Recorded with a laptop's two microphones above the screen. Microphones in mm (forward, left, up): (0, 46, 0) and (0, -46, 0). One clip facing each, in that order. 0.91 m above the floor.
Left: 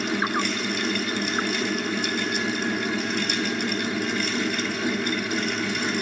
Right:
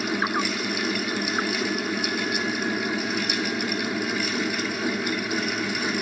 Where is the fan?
5° right (ahead or behind), 1.3 m.